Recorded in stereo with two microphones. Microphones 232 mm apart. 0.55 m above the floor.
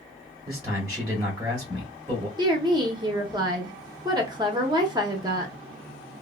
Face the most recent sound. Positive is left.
turn(degrees=-20)  # may be behind; listen again after turning